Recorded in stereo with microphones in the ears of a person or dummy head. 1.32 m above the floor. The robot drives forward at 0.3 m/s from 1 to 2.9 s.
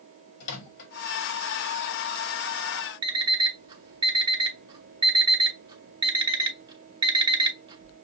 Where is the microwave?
65° left (ahead or behind), 1.8 m.